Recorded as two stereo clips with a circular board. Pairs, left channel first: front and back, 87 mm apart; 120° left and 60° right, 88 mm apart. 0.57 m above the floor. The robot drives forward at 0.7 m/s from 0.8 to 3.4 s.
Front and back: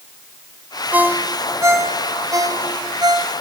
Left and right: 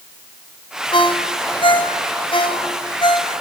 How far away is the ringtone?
About 1.7 m.